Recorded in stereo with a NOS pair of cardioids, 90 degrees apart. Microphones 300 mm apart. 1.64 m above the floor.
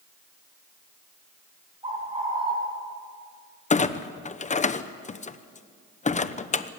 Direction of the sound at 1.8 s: 20° right.